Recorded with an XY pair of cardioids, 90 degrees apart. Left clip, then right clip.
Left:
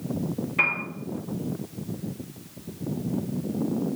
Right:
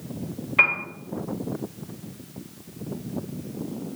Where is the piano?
50° right, 1.2 m.